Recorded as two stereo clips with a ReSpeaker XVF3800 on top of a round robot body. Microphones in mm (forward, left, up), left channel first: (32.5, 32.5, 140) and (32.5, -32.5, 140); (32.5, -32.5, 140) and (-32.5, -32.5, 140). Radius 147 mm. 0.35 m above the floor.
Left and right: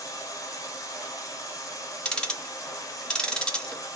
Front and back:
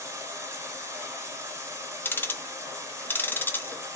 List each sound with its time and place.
0.0 s running water: 130° left, 1.1 m
2.0 s ticking: 25° left, 1.0 m